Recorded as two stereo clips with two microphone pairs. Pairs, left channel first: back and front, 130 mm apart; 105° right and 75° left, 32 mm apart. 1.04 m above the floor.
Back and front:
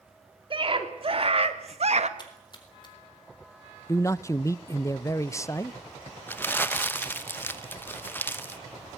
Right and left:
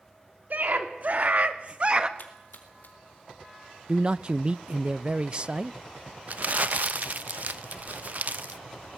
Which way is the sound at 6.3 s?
105° left.